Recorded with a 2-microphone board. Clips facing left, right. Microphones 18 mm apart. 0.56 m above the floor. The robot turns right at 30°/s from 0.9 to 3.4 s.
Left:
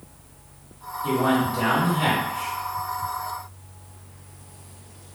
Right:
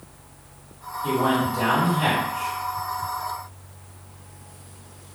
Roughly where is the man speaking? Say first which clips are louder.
Even; ahead.